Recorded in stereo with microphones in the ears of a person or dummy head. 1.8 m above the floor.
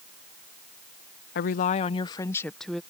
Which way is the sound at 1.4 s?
55° left (ahead or behind).